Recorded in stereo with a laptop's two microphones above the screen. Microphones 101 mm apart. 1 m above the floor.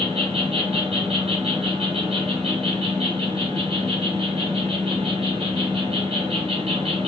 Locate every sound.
0.0 s an insect: 80° right, 1.2 m